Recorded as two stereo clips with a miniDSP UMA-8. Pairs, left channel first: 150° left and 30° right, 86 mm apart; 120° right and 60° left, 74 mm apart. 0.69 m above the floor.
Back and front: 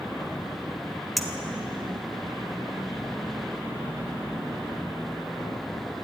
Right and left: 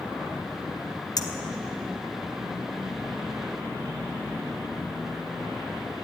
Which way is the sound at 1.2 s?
120° right.